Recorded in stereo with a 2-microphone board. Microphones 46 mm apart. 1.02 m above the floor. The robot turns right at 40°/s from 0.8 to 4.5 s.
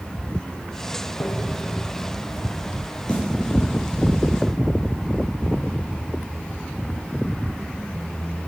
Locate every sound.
1.2 s tapping: 80° left, 1.2 m; by 1.6 s 65° left (ahead or behind), 1.2 m
3.1 s a snare drum: 25° left (ahead or behind), 4 m; by 3.2 s 15° left (ahead or behind), 4 m